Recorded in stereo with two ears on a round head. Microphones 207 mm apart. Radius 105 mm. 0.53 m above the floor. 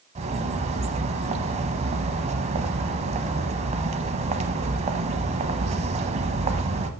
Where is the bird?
30° right (ahead or behind), 0.9 m.